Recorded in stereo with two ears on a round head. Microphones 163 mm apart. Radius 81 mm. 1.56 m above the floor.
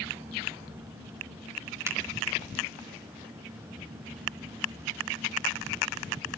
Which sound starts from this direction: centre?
A finger snap, at 1.9 s.